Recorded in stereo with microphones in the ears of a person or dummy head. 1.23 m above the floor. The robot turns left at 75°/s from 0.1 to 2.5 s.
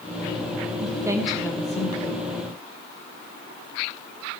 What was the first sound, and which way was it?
A woman speaking, 135° right.